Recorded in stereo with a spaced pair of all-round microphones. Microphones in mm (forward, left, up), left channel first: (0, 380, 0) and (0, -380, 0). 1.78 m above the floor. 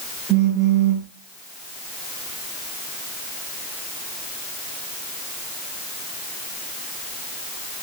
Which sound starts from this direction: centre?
A phone buzzing, at 0.3 s.